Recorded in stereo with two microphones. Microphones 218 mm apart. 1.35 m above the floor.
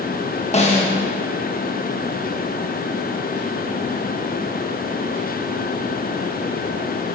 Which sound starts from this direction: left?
A snare drum, at 0.5 s.